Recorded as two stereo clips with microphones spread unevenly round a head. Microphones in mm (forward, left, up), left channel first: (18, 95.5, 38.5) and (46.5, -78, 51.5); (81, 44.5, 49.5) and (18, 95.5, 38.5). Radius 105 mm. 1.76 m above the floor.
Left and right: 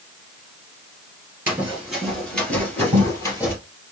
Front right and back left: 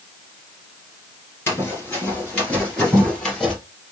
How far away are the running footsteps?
About 2.0 m.